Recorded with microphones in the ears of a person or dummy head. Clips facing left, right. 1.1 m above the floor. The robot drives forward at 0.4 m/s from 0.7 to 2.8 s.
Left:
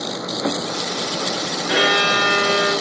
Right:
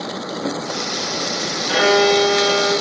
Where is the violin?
10° left (ahead or behind), 2 m.